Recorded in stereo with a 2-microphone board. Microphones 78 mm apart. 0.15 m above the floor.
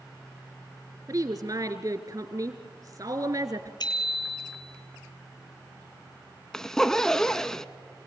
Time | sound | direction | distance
1.1 | a woman speaking | 50° right (ahead or behind) | 2.5 m
3.8 | a bicycle bell | 70° left (ahead or behind) | 2 m
6.5 | a zipper | 5° left (ahead or behind) | 0.6 m